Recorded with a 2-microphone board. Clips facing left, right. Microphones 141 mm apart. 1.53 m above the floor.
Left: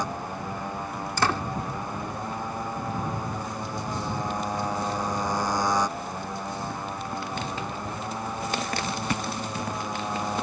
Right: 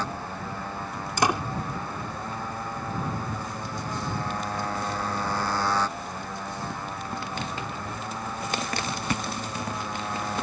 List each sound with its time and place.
0.0 s a motorcycle: 15° left (ahead or behind)
1.2 s a door slam: 15° right (ahead or behind)